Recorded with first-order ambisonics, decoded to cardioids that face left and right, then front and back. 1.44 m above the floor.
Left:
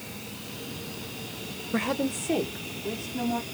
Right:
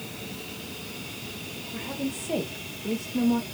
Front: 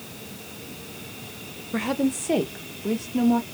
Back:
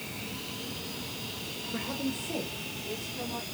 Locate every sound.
1.7 s a woman speaking: 55° left, 0.7 m; by 3.5 s 15° right, 2 m